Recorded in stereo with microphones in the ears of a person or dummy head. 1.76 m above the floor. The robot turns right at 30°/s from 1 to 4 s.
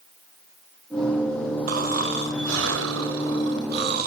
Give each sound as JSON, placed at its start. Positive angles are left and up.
{"t": 1.7, "sound": "snoring", "azimuth_deg": -125, "distance_m": 1.9}